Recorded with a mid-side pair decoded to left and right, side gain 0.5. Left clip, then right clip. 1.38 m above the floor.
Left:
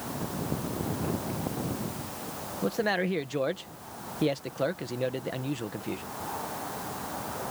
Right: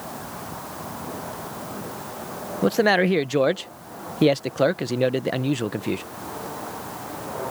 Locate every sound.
2.6 s a man speaking: 50° right